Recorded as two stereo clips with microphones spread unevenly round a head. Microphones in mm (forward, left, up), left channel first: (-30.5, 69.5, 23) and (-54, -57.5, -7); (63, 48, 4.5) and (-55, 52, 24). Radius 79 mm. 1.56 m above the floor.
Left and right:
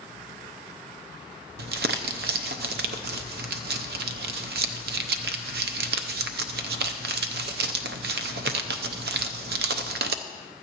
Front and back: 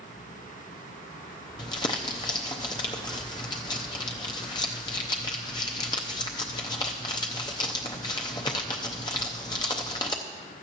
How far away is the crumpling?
About 0.5 m.